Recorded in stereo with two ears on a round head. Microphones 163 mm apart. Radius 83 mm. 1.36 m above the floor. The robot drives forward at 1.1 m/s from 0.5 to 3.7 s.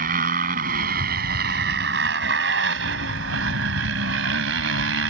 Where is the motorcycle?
50° right (ahead or behind); by 5.1 s 80° right.